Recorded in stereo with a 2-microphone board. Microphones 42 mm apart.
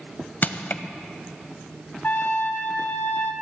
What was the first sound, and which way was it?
Crushing, 45° left (ahead or behind).